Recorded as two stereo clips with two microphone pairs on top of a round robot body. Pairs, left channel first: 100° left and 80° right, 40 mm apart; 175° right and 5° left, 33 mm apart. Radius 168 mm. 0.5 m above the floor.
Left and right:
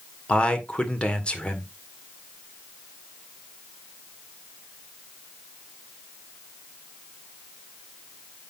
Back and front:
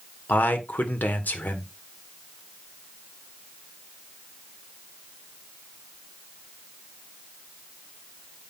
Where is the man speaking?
165° left, 2 m.